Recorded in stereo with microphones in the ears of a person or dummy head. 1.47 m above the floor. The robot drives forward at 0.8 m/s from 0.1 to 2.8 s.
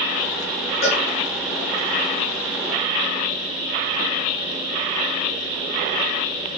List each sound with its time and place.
0.8 s a cowbell: 60° left (ahead or behind), 4 m